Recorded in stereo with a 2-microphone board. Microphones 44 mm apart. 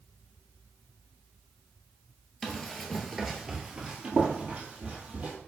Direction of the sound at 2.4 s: 10° left (ahead or behind).